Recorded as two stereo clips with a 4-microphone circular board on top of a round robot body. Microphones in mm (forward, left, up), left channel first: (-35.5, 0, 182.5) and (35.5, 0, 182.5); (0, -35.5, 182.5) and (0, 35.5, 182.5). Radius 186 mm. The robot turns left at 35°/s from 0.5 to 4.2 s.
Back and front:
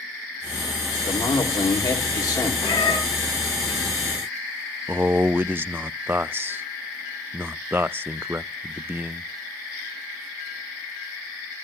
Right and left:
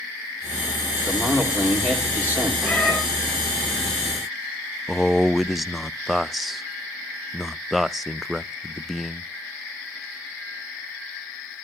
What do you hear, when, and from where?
1.0 s a man speaking: 165° right, 3.5 m; by 2.5 s 145° left, 3.5 m
2.6 s a cat meowing: 165° right, 2.5 m; by 3.0 s 175° right, 2.5 m
4.9 s a man speaking: straight ahead, 0.6 m